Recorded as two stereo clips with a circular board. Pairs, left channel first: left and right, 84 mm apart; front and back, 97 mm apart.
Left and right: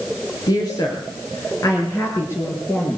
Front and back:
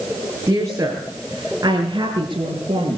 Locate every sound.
0.5 s a woman speaking: 120° left, 5.5 m; by 3.0 s 145° left, 6.5 m